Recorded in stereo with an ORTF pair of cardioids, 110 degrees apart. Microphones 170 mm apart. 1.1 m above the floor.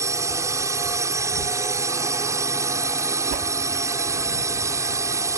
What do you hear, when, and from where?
0.0 s a drone: 20° right
3.3 s a whoosh: 70° right